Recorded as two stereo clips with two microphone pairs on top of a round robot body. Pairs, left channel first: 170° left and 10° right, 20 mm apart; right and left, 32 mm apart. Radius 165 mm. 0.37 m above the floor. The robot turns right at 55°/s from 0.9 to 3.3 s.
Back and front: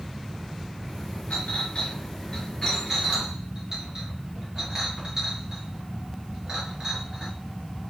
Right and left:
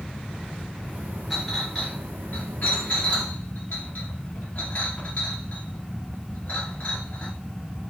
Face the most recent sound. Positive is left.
turn(degrees=-75)